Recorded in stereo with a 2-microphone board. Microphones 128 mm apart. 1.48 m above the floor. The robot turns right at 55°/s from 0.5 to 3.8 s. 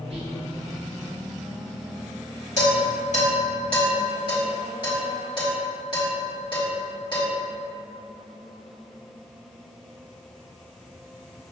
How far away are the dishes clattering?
About 1.9 m.